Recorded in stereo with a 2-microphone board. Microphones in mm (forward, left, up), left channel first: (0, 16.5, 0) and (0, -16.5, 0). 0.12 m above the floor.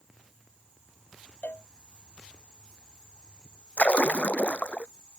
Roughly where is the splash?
Left.